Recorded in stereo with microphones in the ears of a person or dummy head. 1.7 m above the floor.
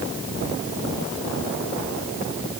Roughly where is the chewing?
No chewing in this recording.